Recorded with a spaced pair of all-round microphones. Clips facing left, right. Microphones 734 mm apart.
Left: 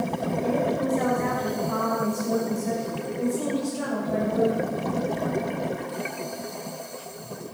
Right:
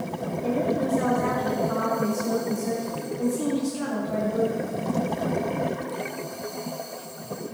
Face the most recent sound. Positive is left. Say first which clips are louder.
# right 1 dB
turn(degrees=-45)  # may be behind; listen again after turning